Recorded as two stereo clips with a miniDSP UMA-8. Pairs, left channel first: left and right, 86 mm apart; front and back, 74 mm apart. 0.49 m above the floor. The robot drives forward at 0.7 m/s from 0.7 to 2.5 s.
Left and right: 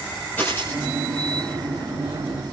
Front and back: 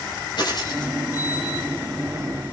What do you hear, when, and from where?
0.4 s a dropped coin: 20° left, 8.5 m